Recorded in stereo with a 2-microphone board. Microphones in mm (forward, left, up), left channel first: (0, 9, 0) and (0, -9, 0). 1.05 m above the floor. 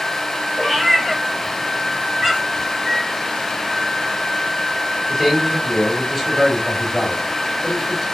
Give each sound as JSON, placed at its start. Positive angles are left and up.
{"t": 0.6, "sound": "a cat meowing", "side_deg": -30, "distance_m": 2.0}
{"t": 2.8, "sound": "a microwave", "side_deg": -35, "distance_m": 3.5}
{"t": 5.1, "sound": "a man speaking", "side_deg": -25, "distance_m": 3.5}